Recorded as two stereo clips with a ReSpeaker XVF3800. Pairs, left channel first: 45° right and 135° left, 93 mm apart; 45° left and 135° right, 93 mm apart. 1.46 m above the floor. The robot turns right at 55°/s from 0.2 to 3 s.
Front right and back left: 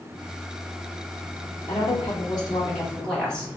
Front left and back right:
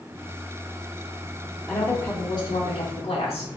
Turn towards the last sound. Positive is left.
turn(degrees=35)